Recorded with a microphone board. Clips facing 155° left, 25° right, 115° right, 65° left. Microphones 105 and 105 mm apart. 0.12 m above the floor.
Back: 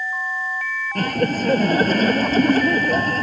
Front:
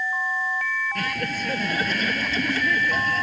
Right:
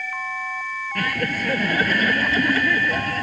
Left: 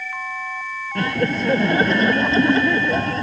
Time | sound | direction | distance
0.9 | laughter | 125° left | ?